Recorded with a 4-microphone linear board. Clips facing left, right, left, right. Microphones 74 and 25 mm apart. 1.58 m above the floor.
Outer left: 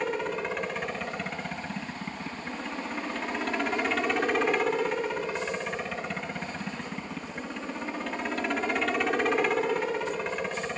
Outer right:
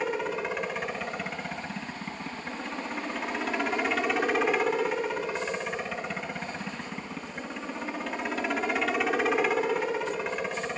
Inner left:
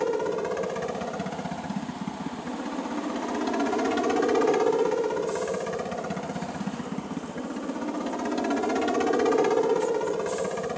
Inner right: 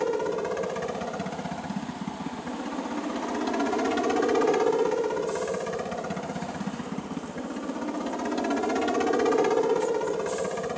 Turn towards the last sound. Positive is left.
turn(degrees=-5)  # may be behind; listen again after turning